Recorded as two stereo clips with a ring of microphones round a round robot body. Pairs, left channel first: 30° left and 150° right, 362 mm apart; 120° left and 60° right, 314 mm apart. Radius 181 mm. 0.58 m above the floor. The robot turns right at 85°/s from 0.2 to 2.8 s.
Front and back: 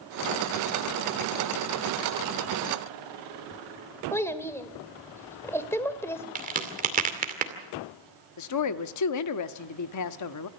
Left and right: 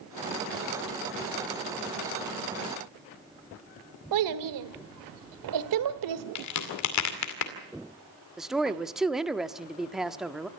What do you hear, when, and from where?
4.1 s a child speaking: 55° right, 1.6 m
6.3 s a crack: 145° left, 2 m
8.4 s a woman speaking: 30° left, 1.1 m